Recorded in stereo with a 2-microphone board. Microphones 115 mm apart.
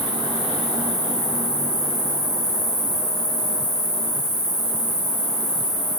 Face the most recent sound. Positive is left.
turn(degrees=-20)  # may be behind; listen again after turning